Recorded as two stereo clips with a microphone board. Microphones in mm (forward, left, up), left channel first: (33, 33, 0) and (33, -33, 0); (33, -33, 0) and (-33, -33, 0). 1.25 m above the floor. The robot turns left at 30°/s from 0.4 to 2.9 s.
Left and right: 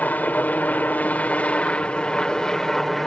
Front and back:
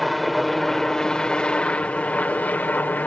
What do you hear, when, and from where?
0.0 s a helicopter: 90° left; by 3.1 s 15° left